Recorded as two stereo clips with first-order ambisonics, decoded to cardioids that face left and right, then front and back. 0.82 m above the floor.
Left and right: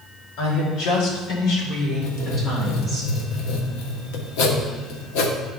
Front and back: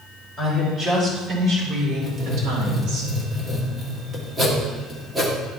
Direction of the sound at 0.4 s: 90° left.